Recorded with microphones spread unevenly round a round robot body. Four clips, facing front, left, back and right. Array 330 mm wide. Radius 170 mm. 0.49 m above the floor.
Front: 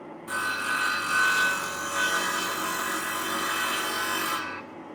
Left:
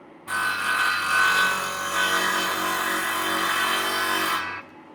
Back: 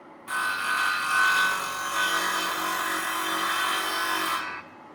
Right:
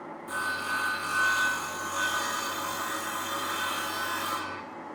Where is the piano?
No piano in this recording.